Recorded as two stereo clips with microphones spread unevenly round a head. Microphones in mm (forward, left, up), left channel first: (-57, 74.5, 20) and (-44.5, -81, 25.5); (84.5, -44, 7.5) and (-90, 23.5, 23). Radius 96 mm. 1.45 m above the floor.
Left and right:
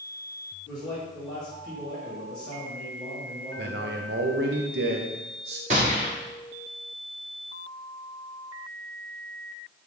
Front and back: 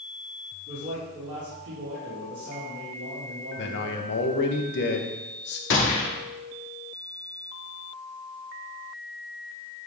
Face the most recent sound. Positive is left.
turn(degrees=-35)